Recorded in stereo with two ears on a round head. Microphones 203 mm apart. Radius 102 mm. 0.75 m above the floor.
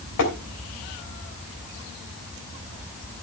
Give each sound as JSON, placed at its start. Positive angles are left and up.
{"t": 0.2, "sound": "tapping", "side_deg": 70, "distance_m": 3.5}